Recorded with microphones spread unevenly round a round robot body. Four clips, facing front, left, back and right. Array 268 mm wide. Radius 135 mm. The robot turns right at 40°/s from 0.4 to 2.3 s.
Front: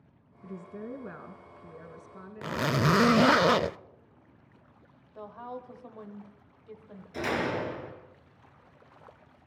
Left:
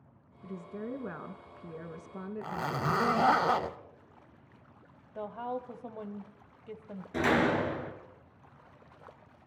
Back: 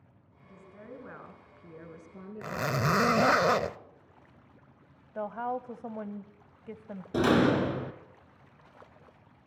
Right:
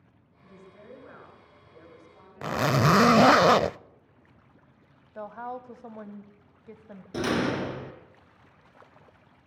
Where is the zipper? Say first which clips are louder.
Right 10 dB, front 3 dB; 80° right, 0.6 m.